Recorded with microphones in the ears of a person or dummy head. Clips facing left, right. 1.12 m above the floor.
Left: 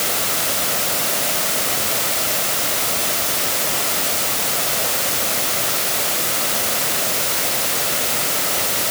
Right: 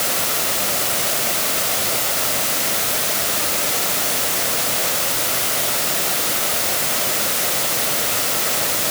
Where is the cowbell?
No cowbell in this recording.